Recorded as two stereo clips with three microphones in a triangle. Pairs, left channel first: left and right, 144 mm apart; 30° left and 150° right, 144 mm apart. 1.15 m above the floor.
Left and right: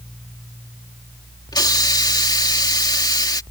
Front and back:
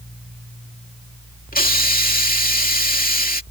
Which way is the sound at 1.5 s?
30° left.